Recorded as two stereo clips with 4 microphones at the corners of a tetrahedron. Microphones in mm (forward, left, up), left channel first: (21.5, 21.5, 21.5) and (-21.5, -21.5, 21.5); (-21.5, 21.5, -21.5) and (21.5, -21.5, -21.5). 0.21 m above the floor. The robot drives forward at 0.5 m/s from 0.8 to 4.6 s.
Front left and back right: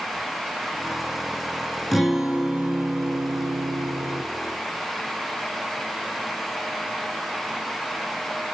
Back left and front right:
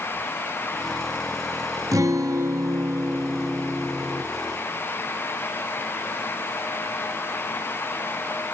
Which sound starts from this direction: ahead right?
A guitar, at 1.9 s.